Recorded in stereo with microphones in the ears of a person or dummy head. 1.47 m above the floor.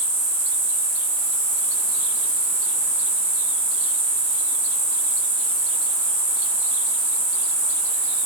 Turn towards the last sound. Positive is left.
turn(degrees=-35)  # may be behind; listen again after turning